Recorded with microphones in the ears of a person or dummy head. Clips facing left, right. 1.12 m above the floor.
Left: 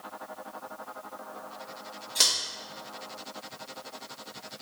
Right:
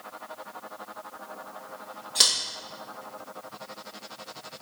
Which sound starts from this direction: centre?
Scissors, at 2.1 s.